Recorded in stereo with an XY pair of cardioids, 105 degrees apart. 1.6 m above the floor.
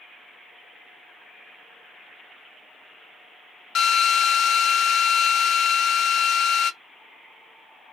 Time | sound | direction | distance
3.8 | a drill | 60° left | 1.0 m